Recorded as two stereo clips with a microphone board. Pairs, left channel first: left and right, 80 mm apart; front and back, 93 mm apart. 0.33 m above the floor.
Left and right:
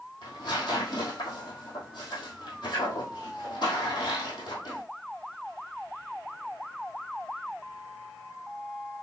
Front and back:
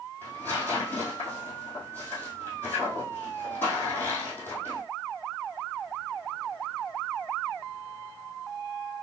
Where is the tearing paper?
70° left, 2 m.